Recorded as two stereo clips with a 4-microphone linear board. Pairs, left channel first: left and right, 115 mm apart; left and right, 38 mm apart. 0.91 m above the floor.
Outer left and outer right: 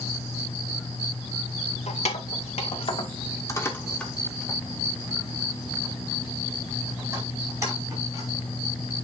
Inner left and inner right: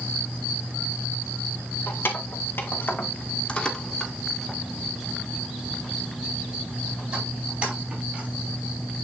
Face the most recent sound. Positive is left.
turn(degrees=-35)  # may be behind; listen again after turning